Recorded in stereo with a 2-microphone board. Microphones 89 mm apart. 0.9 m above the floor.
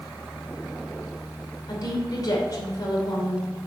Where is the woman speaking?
45° left (ahead or behind), 2.5 m.